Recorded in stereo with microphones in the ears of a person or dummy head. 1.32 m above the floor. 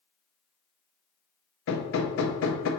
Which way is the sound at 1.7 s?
75° left (ahead or behind).